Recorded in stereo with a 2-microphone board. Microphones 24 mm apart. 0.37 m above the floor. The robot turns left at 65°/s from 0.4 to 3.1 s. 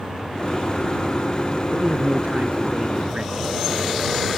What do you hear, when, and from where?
1.7 s a man speaking: 45° right; by 3.3 s 135° right